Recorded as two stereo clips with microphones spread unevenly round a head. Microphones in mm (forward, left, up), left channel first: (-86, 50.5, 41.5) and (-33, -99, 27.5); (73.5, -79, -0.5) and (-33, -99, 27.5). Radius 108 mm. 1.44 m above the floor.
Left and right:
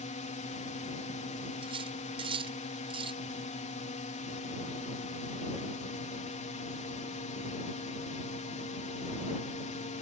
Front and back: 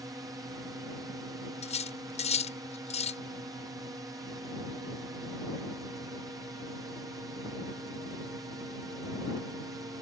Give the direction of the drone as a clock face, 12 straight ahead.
8 o'clock.